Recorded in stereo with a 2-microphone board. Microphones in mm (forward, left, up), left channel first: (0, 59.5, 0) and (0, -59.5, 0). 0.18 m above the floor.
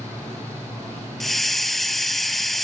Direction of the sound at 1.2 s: Centre (ahead or behind).